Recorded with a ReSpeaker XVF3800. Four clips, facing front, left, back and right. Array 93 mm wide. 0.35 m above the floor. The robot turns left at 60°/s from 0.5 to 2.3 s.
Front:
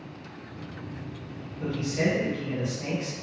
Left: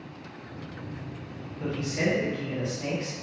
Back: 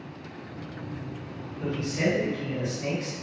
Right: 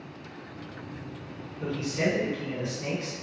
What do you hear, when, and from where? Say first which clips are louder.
1.6 s a man speaking: even, even; 100° left, 1.7 m; by 3.1 s 60° left, 1.7 m